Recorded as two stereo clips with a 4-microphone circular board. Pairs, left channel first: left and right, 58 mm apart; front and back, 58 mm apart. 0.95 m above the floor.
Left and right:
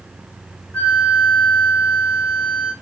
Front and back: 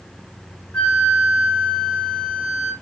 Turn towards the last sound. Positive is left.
turn(degrees=50)